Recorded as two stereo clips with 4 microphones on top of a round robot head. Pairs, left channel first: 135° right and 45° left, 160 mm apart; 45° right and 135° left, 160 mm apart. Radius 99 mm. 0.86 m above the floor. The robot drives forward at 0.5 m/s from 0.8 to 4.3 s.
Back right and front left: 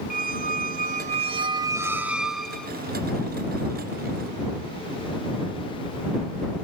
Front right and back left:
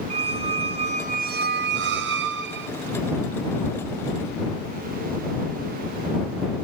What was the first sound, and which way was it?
A squeak, 80° left.